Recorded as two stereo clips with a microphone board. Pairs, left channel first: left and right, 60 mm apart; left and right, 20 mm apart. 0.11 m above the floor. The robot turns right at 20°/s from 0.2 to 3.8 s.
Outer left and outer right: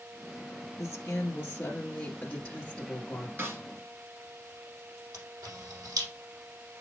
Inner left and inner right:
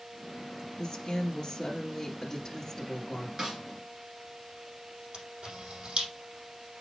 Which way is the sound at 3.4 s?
40° right (ahead or behind).